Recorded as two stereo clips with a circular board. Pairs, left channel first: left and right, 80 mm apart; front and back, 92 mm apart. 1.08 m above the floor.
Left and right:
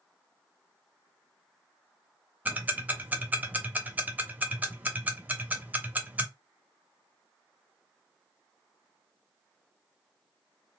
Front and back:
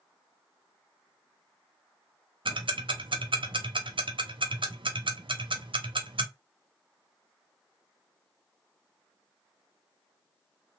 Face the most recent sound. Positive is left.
turn(degrees=-160)